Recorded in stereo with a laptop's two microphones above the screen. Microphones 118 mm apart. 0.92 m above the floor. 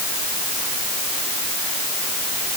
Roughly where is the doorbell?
I don't hear a doorbell.